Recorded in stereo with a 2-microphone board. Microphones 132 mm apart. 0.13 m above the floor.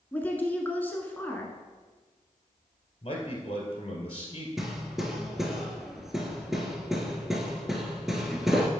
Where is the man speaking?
45° left (ahead or behind), 2 m.